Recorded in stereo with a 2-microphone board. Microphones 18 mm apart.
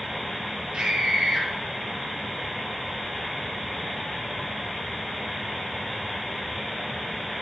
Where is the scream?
55° right (ahead or behind), 5.5 m.